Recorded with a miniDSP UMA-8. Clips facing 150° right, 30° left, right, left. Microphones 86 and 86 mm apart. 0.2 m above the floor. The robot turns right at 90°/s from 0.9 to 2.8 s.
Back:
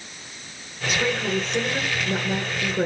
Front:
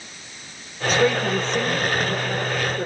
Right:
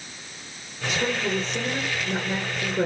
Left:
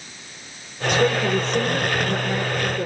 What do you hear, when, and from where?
0.9 s a woman speaking: 70° left, 3 m; by 2.9 s 115° right, 3 m